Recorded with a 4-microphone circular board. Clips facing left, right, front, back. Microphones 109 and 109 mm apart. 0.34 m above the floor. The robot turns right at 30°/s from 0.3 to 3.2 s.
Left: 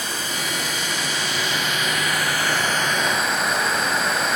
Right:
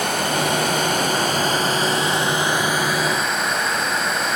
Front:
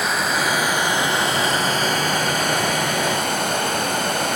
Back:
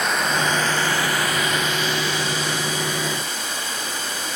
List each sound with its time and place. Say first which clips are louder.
0.0 s running water: right 8 dB, even; 85° right, 1.3 m; by 4.4 s straight ahead, 1.3 m